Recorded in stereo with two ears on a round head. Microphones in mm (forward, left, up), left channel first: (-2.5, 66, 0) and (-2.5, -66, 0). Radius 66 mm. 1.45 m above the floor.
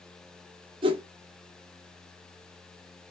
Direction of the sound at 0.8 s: 35° right (ahead or behind).